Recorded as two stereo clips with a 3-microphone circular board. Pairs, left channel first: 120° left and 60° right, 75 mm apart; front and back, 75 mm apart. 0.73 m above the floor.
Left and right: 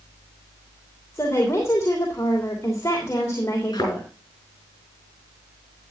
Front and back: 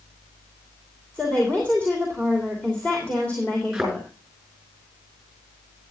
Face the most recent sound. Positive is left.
turn(degrees=95)